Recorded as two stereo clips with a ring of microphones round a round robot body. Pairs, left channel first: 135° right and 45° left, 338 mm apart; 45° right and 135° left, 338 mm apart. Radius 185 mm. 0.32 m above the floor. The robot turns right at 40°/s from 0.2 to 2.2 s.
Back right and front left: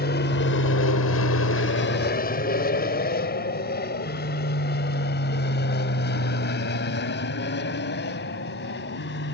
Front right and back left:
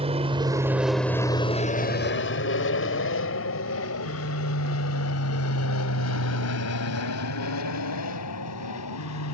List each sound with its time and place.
0.0 s an aircraft: 165° right; by 9.3 s 80° right